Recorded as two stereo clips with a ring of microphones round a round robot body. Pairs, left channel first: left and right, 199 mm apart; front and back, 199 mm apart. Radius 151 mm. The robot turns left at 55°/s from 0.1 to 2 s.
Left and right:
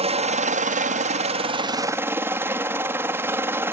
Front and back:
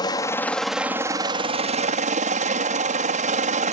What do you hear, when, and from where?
0.0 s a helicopter: 60° right; by 3.7 s 165° right